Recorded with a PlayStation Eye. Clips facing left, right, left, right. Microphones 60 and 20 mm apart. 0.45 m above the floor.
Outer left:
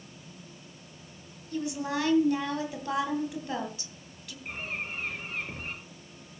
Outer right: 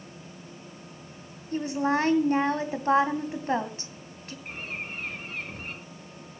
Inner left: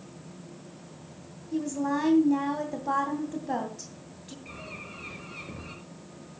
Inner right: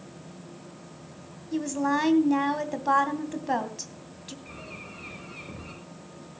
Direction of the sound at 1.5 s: 40° right (ahead or behind).